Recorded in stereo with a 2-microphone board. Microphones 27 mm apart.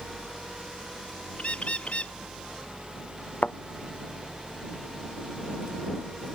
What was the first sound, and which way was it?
A bird, 55° left (ahead or behind).